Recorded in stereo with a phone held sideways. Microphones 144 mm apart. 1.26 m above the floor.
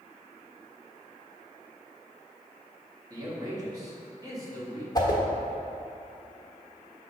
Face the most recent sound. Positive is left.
turn(degrees=25)  # may be behind; listen again after turning